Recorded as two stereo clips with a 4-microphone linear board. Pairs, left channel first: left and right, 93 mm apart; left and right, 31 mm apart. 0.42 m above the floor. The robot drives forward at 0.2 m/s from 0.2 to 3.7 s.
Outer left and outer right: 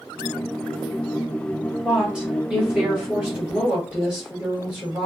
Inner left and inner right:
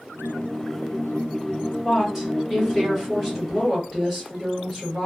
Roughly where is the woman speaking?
Centre.